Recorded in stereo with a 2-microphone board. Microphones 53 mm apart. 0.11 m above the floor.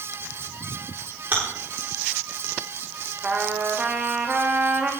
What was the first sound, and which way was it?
Chewing, 40° right (ahead or behind).